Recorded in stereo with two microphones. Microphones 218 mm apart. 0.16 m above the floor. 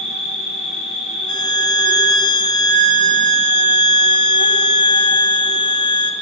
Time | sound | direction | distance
0.0 | an insect | 25° left (ahead or behind) | 3.5 m
1.3 | a violin | 35° right (ahead or behind) | 0.8 m